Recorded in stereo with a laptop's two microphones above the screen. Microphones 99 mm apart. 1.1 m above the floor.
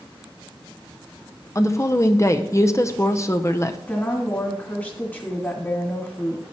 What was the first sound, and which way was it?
A woman speaking, 30° left (ahead or behind).